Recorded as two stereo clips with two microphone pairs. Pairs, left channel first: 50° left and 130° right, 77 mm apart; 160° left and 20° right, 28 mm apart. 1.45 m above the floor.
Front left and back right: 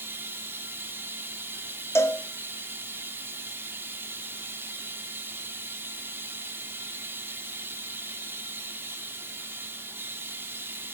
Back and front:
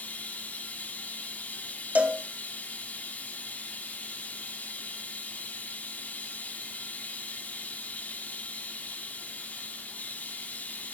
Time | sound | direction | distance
0.0 | running water | 170° left | 2 m
1.9 | a cowbell | straight ahead | 1.8 m